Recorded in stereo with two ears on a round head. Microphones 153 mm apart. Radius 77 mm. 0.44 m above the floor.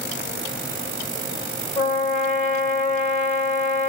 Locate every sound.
1.8 s a trumpet: 45° left (ahead or behind), 1.8 m